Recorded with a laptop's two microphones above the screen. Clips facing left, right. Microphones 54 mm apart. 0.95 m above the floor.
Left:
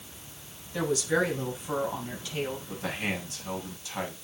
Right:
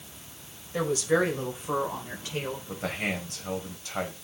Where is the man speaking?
50° right (ahead or behind), 5 m.